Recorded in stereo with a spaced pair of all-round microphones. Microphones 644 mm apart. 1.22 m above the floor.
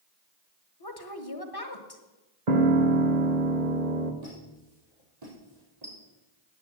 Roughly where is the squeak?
Right.